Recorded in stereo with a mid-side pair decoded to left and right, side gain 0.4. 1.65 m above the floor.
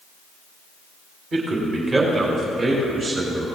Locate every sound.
1.3 s a man speaking: 55° right, 2.5 m; by 3.5 s 50° right, 5.5 m